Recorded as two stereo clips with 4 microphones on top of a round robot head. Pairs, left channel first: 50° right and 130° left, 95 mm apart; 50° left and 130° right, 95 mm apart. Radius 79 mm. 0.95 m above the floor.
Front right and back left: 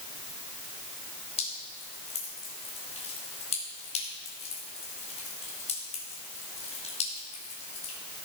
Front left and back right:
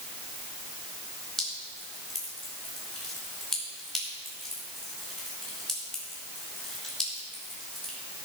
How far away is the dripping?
About 5 m.